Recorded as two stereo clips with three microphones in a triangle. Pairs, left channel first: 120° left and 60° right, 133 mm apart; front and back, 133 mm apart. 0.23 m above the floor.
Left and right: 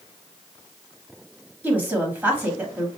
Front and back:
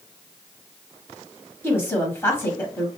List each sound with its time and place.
1.6 s a woman speaking: 20° right, 1.0 m